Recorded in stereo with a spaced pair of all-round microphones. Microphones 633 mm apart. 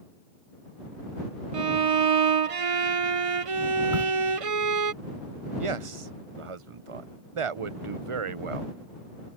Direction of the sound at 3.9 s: 70° right (ahead or behind).